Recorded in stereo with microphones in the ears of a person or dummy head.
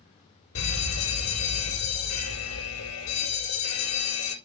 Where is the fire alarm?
75° left (ahead or behind), 3 m.